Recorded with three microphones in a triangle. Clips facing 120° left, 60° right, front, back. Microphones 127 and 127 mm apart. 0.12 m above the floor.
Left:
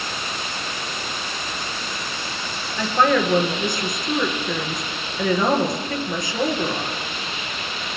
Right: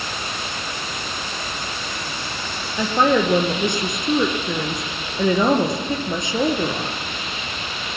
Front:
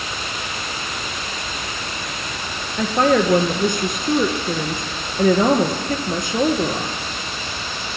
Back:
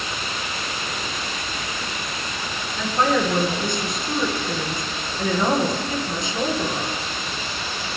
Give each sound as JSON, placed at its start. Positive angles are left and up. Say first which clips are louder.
{"t": 2.8, "sound": "a woman speaking", "louder": "right 1 dB, front 4 dB", "azimuth_deg": 5, "distance_m": 1.8}